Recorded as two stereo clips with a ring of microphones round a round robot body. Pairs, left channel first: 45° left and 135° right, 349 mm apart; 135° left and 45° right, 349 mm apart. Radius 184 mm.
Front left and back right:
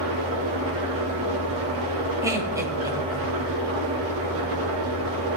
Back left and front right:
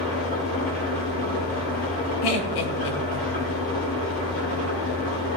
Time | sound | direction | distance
0.0 | an engine running | 170° right | 5.5 m
2.2 | laughter | 145° left | 2 m